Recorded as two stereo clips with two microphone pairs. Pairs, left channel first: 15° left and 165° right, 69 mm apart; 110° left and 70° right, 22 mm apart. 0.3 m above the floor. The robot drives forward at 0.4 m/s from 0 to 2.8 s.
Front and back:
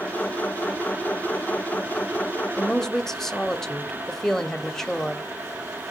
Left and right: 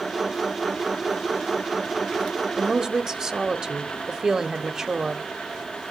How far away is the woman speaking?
About 1.0 m.